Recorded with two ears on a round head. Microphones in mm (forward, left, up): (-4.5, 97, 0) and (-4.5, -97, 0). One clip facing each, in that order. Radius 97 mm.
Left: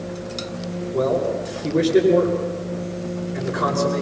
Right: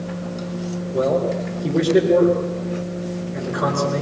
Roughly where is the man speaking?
Right.